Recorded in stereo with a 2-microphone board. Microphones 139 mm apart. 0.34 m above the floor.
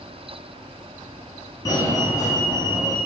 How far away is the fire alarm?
About 5.5 m.